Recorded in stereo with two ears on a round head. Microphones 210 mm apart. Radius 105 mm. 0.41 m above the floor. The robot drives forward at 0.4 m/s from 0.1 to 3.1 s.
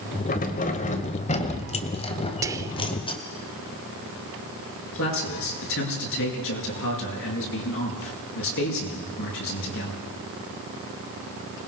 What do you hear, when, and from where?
0.3 s keys jangling: 40° left (ahead or behind), 1.4 m; by 3.2 s 20° left (ahead or behind), 2 m
2.4 s whispering: 15° right (ahead or behind), 0.9 m; by 2.8 s 10° right (ahead or behind), 0.9 m
4.9 s a man speaking: 60° left (ahead or behind), 7 m